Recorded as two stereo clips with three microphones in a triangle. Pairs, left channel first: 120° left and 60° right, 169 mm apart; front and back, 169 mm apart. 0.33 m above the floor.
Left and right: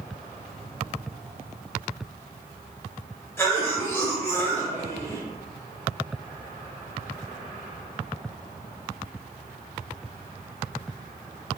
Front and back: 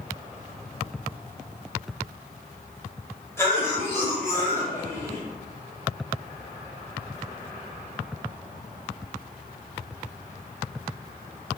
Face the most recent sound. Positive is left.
turn(degrees=60)